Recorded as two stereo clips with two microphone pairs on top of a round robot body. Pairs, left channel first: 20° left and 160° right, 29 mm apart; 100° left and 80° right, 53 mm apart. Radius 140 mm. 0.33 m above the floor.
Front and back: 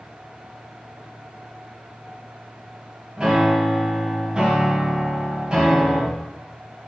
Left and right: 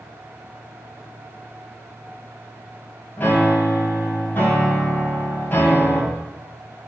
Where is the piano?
145° left, 2.5 m.